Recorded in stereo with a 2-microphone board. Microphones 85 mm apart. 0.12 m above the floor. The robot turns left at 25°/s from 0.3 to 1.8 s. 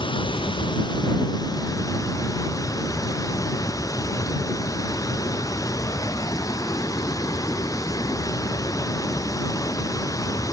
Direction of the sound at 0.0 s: 80° left.